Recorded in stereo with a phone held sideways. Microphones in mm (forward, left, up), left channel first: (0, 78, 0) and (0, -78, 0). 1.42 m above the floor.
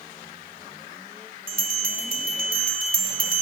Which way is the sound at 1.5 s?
60° right (ahead or behind).